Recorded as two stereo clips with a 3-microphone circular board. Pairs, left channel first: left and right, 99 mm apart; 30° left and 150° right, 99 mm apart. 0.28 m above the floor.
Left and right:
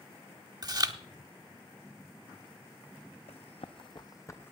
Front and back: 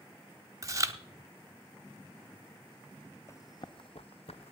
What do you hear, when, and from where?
0.6 s chewing: 110° right, 0.8 m
3.3 s running footsteps: 90° left, 0.9 m; by 4.5 s 20° left, 1.0 m